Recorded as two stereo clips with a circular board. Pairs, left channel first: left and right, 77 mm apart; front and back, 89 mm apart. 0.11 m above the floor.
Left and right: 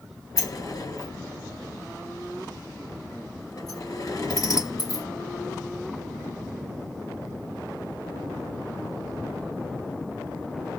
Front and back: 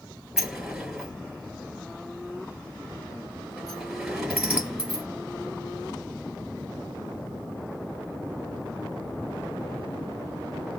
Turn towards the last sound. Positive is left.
turn(degrees=100)